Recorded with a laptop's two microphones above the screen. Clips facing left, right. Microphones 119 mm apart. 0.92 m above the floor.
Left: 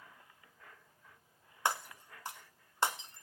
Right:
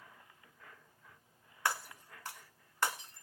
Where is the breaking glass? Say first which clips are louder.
Left 2 dB; 25° left (ahead or behind), 1.2 m.